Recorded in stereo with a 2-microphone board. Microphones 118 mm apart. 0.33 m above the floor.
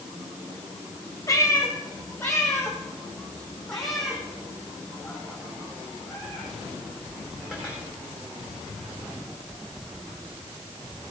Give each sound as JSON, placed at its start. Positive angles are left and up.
{"t": 1.3, "sound": "a cat meowing", "side_deg": 25, "distance_m": 2.0}